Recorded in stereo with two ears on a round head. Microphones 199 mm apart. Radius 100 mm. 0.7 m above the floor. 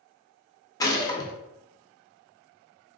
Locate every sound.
0.8 s a gunshot: 15° left (ahead or behind), 0.5 m